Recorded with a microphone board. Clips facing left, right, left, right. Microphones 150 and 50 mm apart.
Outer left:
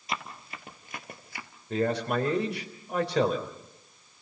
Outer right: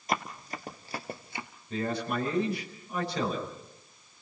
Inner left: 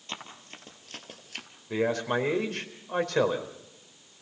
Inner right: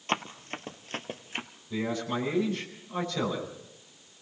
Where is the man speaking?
80° left, 4 m.